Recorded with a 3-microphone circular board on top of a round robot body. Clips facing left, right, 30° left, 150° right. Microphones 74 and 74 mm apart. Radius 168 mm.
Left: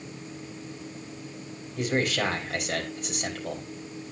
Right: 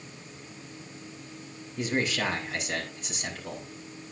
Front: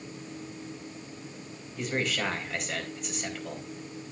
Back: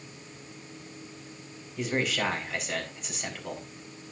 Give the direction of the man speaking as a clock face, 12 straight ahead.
8 o'clock.